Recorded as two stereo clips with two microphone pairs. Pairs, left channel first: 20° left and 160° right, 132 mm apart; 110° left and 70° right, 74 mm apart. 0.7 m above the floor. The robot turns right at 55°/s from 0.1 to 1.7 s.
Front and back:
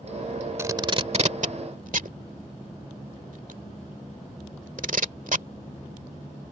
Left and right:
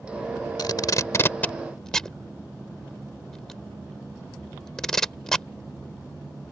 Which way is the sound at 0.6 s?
130° left.